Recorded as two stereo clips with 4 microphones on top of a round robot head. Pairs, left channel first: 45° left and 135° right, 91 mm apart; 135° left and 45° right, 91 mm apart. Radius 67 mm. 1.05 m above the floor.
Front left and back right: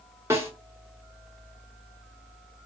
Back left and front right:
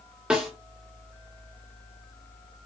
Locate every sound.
0.3 s a snare drum: 110° right, 0.6 m